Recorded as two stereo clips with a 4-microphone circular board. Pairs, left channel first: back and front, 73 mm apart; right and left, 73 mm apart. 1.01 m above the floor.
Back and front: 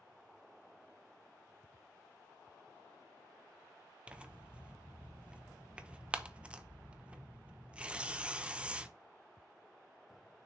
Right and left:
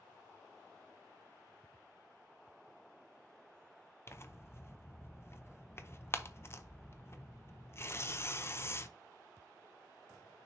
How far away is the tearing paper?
About 0.7 m.